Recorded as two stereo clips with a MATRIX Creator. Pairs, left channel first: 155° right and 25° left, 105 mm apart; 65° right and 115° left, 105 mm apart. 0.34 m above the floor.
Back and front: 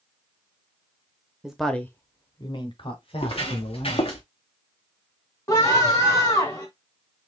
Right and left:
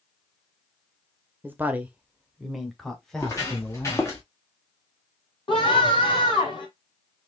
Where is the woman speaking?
90° left, 0.8 m; by 4.1 s 150° right, 2 m.